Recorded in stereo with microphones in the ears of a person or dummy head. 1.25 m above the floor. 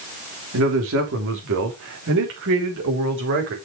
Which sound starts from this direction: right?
A man speaking, at 0.5 s.